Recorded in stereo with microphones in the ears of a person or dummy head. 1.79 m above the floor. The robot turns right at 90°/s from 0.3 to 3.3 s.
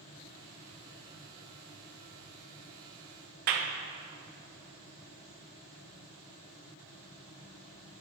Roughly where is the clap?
Right.